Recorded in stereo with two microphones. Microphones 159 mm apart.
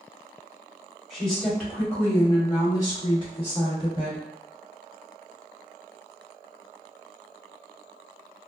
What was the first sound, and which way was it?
A woman speaking, centre (ahead or behind).